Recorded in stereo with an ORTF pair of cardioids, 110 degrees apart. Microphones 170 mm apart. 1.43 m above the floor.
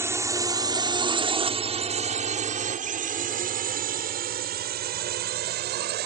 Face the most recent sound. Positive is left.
turn(degrees=-75)